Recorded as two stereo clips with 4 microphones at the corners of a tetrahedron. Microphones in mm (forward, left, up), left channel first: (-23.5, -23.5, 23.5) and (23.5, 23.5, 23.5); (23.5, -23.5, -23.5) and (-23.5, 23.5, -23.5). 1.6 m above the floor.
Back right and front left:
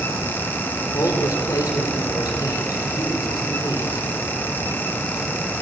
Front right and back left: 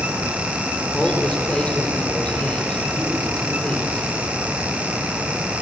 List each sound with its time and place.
0.9 s a man speaking: 120° right, 4.5 m